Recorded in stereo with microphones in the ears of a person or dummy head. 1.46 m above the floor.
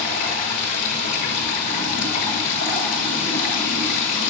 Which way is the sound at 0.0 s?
60° left (ahead or behind).